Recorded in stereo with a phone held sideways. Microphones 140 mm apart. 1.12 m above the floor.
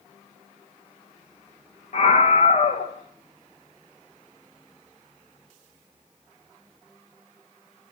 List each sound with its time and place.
1.9 s a scream: 55° left (ahead or behind), 1.8 m